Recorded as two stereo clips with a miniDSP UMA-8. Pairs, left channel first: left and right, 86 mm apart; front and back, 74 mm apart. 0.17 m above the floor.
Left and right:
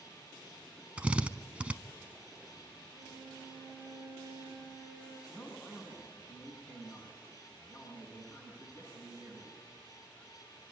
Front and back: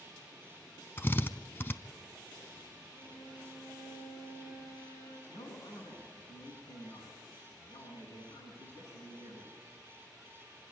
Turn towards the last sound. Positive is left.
turn(degrees=25)